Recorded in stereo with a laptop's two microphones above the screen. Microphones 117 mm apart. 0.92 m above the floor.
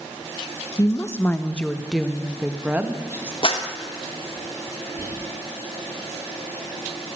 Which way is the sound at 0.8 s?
30° left (ahead or behind).